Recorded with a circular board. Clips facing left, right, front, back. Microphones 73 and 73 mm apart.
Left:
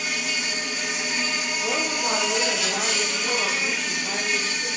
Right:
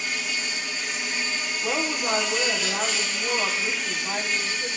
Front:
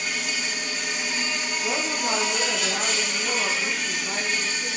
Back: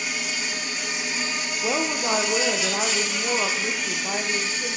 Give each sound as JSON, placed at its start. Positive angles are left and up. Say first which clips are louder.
{"t": 0.0, "sound": "an insect", "louder": "left 2 dB, even", "azimuth_deg": 95, "distance_m": 4.5}
{"t": 1.6, "sound": "a woman speaking", "louder": "even, back 3 dB", "azimuth_deg": -170, "distance_m": 4.0}